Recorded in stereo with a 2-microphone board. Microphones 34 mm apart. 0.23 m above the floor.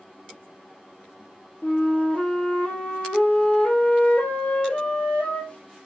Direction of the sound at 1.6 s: 40° left (ahead or behind).